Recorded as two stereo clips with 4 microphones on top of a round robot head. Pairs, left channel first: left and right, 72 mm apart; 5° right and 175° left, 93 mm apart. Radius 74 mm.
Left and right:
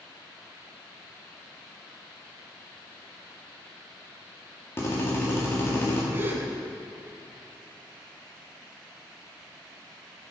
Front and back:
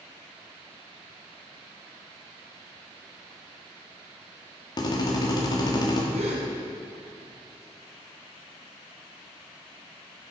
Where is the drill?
30° left, 2 m.